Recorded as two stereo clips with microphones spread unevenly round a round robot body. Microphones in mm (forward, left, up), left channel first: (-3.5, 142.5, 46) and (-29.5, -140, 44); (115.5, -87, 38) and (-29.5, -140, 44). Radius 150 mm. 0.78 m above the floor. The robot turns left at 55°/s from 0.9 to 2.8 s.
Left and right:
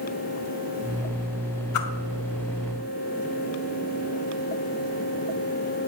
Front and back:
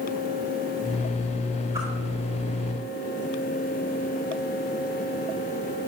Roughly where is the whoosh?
Behind left.